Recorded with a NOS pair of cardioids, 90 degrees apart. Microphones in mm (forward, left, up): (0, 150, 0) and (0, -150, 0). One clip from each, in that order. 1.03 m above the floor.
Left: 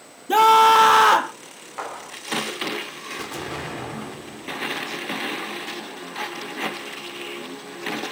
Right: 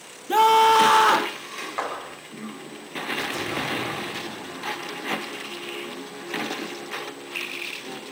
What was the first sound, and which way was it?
A scream, 20° left.